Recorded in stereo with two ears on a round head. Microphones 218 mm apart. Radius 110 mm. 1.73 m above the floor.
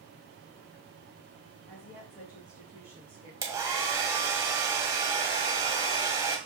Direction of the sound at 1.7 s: 15° left (ahead or behind).